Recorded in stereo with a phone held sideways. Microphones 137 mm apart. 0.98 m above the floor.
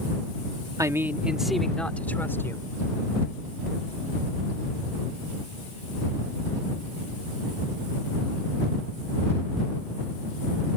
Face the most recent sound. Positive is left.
turn(degrees=20)  # may be behind; listen again after turning